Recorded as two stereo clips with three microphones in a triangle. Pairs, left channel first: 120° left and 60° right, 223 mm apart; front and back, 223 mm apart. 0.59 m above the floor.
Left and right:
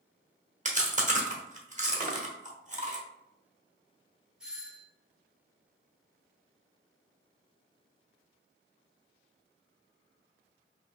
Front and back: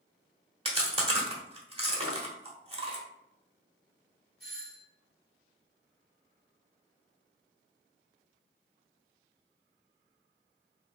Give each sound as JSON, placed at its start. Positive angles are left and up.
{"t": 0.7, "sound": "chewing", "azimuth_deg": -120, "distance_m": 1.1}
{"t": 2.0, "sound": "a drawer", "azimuth_deg": -5, "distance_m": 0.8}
{"t": 4.4, "sound": "a doorbell", "azimuth_deg": -145, "distance_m": 2.0}